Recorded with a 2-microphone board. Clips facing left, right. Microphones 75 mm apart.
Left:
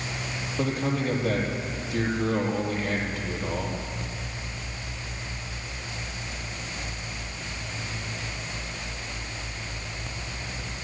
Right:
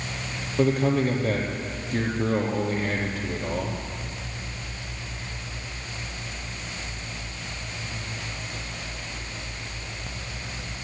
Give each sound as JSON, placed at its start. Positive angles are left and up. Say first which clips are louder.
{"t": 0.6, "sound": "a man speaking", "louder": "right 6 dB", "side_deg": -45, "distance_m": 5.0}